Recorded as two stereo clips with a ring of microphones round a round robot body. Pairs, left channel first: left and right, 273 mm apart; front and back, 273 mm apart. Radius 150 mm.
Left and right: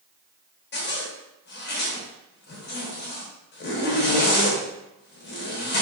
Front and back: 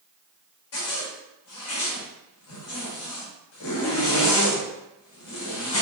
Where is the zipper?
40° left, 0.9 m.